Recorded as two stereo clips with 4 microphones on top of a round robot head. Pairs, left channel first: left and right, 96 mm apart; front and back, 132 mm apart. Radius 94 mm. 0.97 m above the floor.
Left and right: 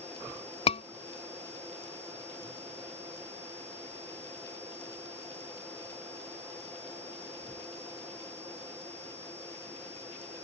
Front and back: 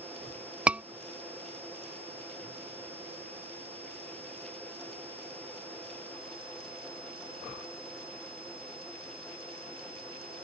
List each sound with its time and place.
0.7 s a scream: 100° left